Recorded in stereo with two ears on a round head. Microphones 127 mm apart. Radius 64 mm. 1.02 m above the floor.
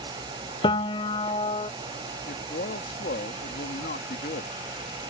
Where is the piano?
35° left (ahead or behind).